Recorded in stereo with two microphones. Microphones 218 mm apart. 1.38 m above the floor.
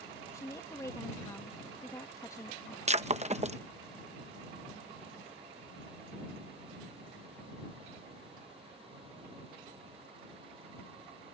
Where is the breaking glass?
30° right (ahead or behind).